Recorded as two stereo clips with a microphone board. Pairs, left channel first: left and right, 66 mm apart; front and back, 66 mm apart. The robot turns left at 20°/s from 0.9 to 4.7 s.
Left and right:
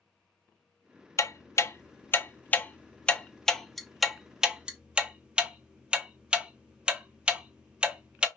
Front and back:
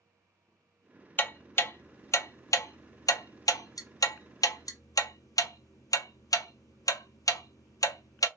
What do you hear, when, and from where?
1.2 s ticking: 55° left, 0.6 m; by 8.3 s 15° right, 0.6 m